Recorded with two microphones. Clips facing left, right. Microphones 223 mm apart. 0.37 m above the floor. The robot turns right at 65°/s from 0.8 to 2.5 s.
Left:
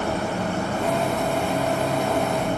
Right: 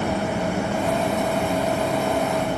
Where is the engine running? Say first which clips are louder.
Right 2 dB; 95° right, 5.5 m; by 2.6 s 15° left, 5.5 m.